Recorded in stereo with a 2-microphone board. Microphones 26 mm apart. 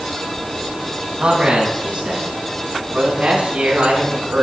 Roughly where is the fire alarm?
No fire alarm in this recording.